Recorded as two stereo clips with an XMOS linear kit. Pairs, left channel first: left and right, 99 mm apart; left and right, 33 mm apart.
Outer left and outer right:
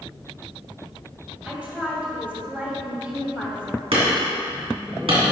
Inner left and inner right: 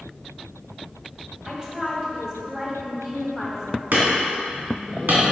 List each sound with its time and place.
1.4 s a woman speaking: 15° right (ahead or behind), 2.5 m
3.9 s hammering: 75° right (ahead or behind), 2.5 m